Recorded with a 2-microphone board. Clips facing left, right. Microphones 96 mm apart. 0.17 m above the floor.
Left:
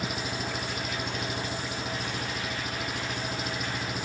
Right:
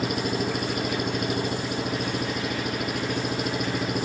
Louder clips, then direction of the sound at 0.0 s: Right 7 dB; 60° right (ahead or behind).